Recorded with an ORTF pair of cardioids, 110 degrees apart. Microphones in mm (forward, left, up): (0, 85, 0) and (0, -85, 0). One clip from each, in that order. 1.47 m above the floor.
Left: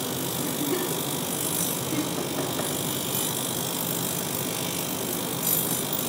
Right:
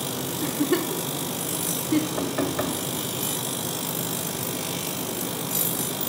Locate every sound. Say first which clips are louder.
0.4 s a giggle: right 5 dB; 55° right, 2 m
2.2 s knocking: right 2 dB; 45° right, 2.5 m